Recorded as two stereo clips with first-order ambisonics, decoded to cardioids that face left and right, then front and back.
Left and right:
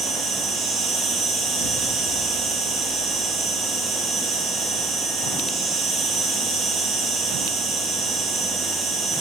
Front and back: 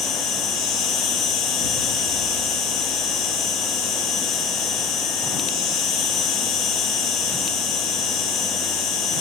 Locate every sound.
0.0 s an insect: 35° right, 1.4 m
1.6 s an explosion: 25° right, 1.6 m